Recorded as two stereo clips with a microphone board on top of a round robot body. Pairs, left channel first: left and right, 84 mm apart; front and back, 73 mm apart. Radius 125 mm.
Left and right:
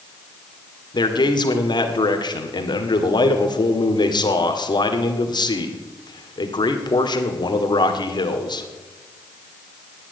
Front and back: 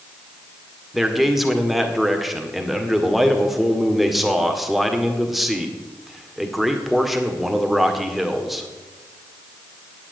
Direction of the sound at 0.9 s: 90° left.